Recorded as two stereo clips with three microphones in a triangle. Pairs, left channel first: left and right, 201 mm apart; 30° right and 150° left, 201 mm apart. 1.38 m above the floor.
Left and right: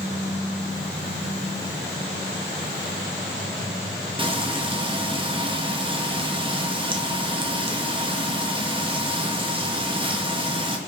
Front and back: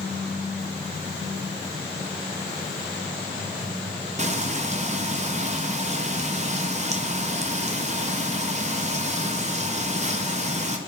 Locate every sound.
4.2 s frying: 150° right, 0.5 m